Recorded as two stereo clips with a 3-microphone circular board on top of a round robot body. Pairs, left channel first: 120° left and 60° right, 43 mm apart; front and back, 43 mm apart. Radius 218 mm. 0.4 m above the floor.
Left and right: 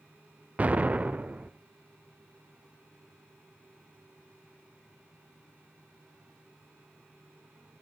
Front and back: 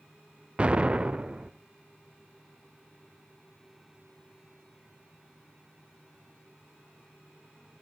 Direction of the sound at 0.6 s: 115° right.